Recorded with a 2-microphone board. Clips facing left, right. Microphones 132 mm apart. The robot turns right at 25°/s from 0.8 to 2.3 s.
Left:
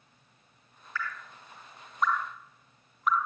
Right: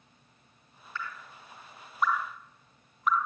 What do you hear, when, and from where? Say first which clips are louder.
0.9 s dripping: left 2 dB; 25° right (ahead or behind), 0.7 m; by 3.3 s centre (ahead or behind), 0.7 m